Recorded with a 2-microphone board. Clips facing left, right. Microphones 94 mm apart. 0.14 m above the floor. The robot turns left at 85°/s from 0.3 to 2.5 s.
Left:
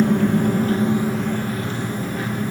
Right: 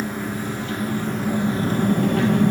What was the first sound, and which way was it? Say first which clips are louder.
An engine running: left 10 dB; 75° left.